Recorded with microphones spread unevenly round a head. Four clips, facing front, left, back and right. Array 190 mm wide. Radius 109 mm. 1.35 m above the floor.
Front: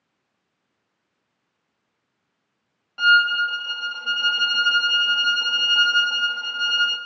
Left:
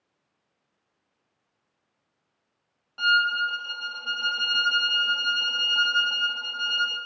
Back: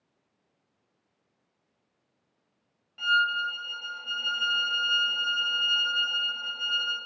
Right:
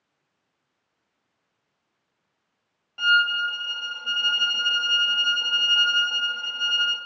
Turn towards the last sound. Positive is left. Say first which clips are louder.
# right 1 dB, front 8 dB
turn(degrees=0)